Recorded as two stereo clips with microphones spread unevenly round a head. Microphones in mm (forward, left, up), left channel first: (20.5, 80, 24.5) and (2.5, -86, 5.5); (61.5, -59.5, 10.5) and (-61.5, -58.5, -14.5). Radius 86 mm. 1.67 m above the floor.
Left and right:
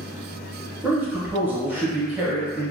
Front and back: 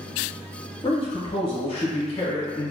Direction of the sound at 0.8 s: 15° right.